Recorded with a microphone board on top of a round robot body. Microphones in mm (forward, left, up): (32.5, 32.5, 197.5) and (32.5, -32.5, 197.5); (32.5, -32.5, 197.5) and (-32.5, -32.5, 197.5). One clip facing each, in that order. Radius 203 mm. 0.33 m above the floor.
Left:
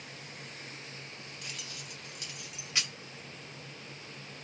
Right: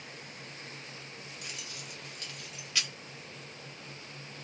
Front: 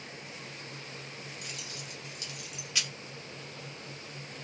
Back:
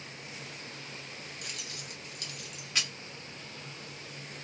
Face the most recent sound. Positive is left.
turn(degrees=140)